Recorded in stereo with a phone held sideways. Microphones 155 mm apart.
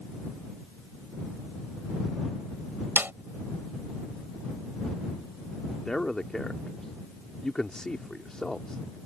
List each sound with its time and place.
3.0 s a snare drum: 15° right (ahead or behind)
5.8 s a man speaking: 5° left (ahead or behind)